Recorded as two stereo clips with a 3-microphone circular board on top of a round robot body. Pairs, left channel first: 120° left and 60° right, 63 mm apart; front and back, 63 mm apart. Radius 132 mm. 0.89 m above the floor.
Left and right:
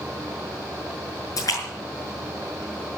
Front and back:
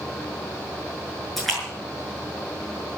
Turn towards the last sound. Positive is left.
turn(degrees=90)